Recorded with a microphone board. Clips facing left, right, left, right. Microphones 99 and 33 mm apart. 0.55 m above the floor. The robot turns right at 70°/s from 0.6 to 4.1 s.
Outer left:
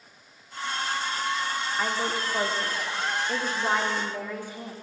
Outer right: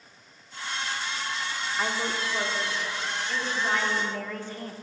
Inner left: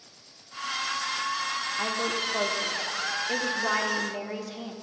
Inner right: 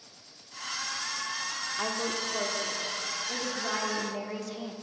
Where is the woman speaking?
Straight ahead, 1.4 m; by 4.7 s 160° left, 1.4 m.